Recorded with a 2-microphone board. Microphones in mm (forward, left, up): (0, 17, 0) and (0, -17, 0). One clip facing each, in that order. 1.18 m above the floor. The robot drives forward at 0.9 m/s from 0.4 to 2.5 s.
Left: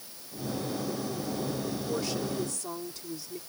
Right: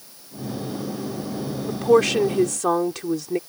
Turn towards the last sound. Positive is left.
turn(degrees=-90)